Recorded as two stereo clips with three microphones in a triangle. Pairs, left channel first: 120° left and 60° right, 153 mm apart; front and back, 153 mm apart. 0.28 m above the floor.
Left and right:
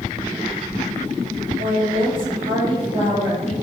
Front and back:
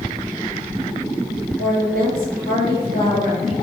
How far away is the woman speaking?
About 6 m.